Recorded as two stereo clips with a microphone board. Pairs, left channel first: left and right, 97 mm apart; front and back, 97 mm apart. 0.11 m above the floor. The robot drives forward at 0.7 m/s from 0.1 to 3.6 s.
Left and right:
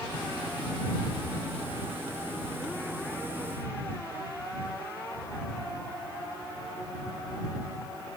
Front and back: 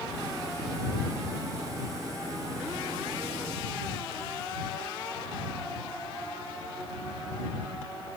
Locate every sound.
Only background noise.